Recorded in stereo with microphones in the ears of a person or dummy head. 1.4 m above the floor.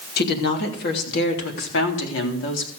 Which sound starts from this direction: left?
A woman speaking, at 0.2 s.